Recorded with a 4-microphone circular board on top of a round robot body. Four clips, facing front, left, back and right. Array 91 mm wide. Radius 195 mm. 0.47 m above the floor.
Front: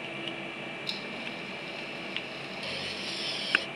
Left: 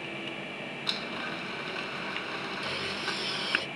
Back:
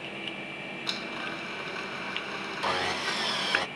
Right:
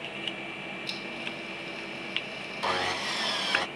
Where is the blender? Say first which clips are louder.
Left 2 dB, back 3 dB; 145° left.